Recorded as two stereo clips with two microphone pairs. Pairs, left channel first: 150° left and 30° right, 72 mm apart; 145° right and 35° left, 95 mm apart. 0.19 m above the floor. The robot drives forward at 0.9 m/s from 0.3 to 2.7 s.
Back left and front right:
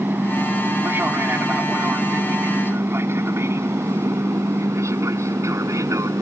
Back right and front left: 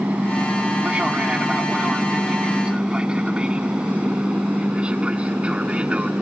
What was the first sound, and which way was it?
An aircraft, 30° right.